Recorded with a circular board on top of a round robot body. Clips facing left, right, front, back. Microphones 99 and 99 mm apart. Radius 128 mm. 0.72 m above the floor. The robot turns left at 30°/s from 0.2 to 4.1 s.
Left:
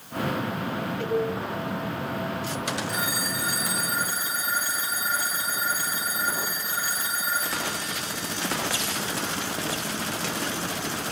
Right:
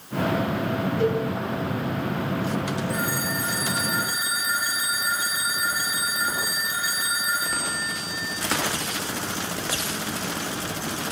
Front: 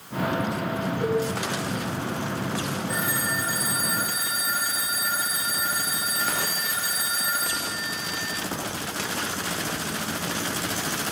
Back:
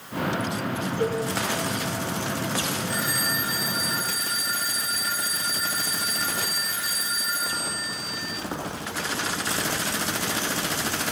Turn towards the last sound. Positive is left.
turn(degrees=35)